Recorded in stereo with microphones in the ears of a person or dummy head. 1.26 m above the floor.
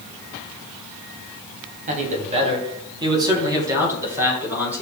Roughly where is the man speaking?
Right.